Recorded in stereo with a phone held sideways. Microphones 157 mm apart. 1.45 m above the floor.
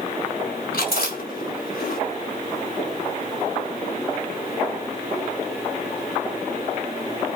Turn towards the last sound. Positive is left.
turn(degrees=80)